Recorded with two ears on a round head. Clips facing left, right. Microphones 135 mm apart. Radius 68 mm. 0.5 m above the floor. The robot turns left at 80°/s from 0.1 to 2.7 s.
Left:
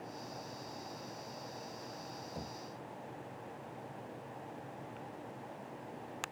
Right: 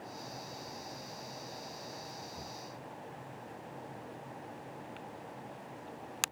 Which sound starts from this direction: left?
Knocking, at 2.4 s.